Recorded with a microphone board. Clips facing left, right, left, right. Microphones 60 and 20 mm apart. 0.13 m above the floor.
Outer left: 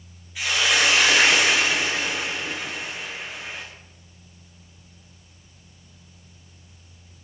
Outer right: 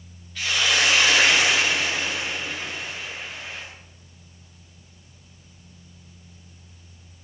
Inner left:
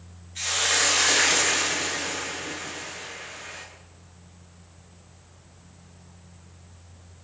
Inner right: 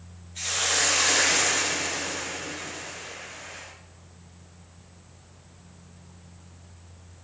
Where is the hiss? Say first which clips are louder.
Outer left 1 dB, inner left 2 dB; 10° left (ahead or behind), 9 m.